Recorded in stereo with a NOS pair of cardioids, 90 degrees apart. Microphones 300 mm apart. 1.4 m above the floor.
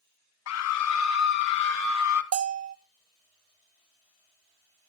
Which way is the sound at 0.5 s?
65° left.